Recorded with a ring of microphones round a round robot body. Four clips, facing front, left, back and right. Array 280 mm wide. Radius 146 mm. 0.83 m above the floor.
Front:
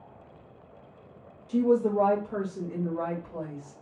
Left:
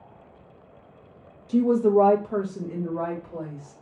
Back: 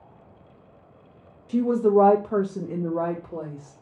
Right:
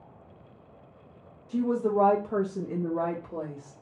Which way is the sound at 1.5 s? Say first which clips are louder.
Left 7 dB, back 4 dB; 115° left.